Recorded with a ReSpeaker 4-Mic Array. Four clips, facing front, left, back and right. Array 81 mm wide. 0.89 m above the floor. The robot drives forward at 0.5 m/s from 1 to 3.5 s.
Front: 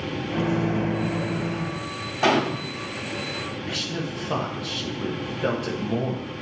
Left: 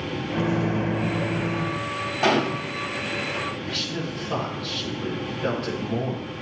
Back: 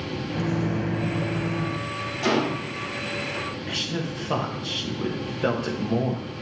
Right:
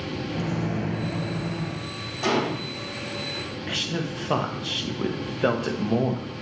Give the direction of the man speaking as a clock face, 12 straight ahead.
3 o'clock.